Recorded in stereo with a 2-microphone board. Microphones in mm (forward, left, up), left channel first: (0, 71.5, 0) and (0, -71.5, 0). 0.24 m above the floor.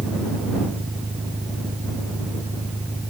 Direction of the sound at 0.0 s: 10° right (ahead or behind).